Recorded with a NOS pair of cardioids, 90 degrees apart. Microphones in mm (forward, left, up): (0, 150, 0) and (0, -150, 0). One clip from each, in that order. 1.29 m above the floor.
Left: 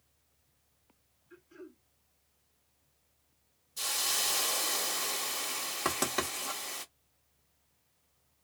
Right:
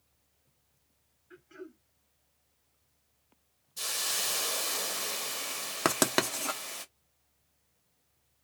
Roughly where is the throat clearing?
Ahead right.